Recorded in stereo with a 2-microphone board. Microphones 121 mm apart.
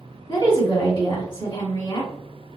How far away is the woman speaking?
About 1.9 m.